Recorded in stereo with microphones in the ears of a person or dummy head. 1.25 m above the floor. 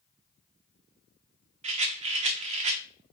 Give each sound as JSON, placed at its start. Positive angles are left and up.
{"t": 1.6, "sound": "a rattle", "side_deg": -35, "distance_m": 0.6}